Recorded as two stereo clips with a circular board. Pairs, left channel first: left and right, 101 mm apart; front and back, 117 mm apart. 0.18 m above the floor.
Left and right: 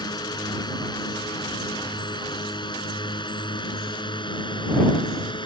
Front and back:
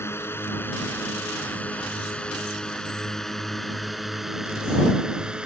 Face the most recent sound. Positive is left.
turn(degrees=100)